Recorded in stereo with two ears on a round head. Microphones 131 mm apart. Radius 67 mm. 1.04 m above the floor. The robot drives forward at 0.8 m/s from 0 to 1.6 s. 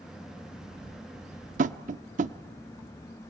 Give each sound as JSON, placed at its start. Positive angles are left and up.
{"t": 1.6, "sound": "tapping", "side_deg": -60, "distance_m": 0.9}